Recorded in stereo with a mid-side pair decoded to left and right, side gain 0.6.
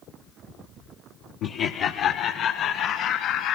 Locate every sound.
1.4 s laughter: 65° left, 1.1 m; by 3.6 s 70° left, 3.5 m